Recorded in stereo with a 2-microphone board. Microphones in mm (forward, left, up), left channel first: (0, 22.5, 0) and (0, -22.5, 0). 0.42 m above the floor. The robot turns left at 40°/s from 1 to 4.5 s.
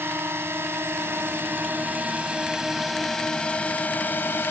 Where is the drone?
70° right (ahead or behind); by 4.5 s 55° left (ahead or behind).